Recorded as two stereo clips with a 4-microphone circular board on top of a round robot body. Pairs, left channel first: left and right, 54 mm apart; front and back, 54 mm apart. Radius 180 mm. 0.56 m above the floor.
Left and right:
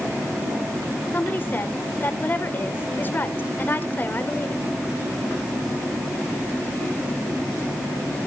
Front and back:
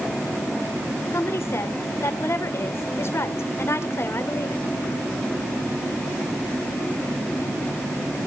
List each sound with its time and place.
1.1 s a woman speaking: 40° left, 2.5 m